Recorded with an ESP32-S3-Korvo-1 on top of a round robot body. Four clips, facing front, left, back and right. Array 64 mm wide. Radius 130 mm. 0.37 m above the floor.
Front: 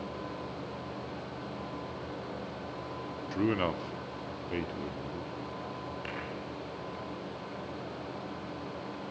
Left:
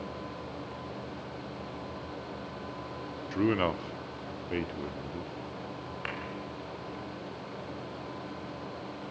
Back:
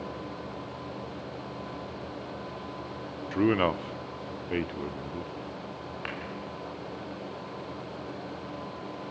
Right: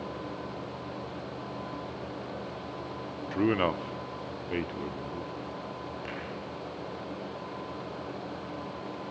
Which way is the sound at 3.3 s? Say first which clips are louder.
Right 1 dB, back 5 dB; 165° right.